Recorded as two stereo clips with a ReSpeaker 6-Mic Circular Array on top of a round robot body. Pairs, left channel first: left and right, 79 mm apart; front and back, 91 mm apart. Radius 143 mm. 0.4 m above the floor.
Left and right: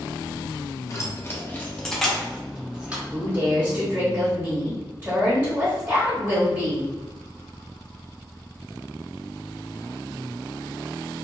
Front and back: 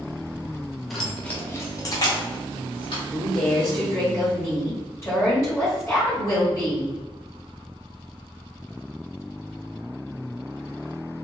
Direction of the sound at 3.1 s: 30° right.